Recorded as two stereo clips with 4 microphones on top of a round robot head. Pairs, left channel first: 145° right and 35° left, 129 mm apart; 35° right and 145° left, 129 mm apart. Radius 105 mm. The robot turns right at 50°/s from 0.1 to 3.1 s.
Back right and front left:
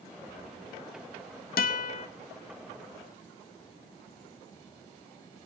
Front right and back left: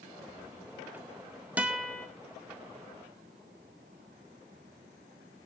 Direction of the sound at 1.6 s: 135° right.